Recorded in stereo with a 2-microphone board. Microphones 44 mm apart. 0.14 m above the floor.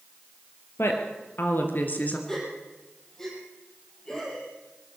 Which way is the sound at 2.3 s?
10° left (ahead or behind).